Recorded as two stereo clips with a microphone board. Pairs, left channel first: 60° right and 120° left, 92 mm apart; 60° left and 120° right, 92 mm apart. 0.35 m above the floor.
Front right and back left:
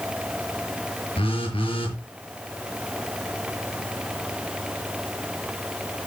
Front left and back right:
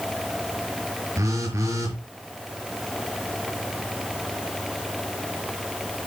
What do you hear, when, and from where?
1.2 s a phone buzzing: 60° right, 5 m